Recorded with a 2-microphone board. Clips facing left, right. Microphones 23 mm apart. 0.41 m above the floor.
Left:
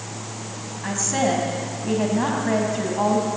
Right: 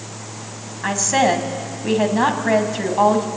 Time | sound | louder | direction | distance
0.8 | a woman speaking | right 5 dB | 35° right (ahead or behind) | 3 m